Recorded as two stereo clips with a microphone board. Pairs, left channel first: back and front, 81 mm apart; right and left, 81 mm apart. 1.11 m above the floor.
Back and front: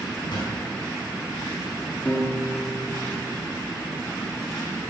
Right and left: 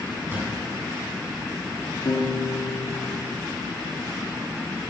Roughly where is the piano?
Right.